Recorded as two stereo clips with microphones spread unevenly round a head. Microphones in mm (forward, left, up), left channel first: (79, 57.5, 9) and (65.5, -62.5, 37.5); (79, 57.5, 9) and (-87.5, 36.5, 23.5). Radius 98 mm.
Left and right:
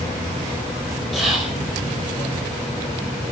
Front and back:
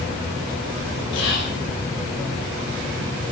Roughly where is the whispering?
Ahead.